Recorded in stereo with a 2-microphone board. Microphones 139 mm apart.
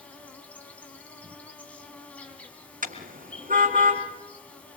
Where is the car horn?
80° right, 3 m.